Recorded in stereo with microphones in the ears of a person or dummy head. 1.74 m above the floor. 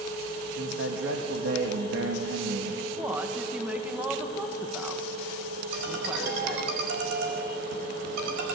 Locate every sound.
0.6 s a man speaking: 80° right, 2.5 m
3.0 s a woman speaking: 10° right (ahead or behind), 1.5 m
5.7 s a ringtone: 65° right (ahead or behind), 4.5 m